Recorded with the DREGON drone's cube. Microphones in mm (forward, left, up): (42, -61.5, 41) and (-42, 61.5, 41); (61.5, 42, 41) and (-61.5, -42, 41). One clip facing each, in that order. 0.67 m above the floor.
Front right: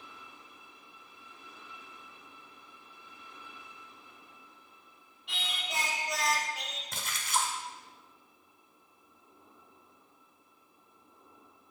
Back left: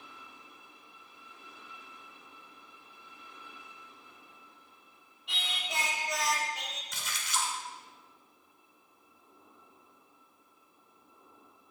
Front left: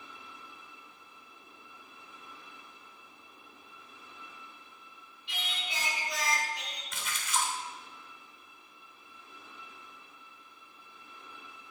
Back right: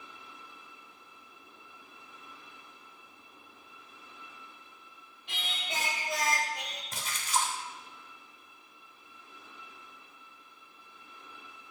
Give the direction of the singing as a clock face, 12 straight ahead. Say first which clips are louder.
Even, back right 1 dB; 5 o'clock.